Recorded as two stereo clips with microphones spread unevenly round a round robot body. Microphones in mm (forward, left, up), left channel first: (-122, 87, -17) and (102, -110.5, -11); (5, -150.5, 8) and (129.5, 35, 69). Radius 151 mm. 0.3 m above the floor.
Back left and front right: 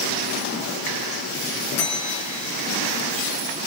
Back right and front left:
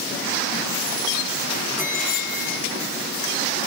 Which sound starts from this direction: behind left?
A bell, at 1.8 s.